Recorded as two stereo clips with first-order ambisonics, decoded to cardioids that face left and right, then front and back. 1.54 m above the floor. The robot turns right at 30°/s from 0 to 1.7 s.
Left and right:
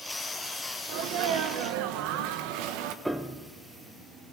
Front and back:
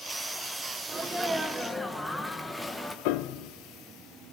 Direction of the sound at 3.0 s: 5° right.